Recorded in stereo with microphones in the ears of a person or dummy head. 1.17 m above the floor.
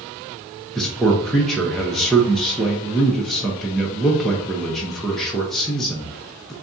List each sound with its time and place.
0.8 s a man speaking: 5° left (ahead or behind), 0.7 m